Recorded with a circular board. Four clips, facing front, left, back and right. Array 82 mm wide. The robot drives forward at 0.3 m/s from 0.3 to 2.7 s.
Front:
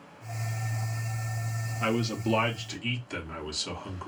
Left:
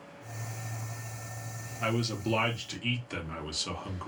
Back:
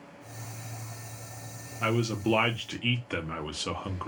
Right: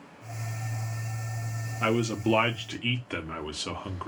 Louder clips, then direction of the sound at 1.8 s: Right 5 dB, back 1 dB; 90° right.